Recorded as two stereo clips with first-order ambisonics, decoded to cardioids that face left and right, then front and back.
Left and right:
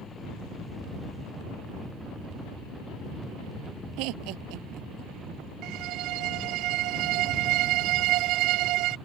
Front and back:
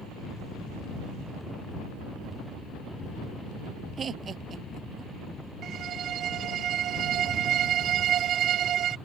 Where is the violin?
125° right.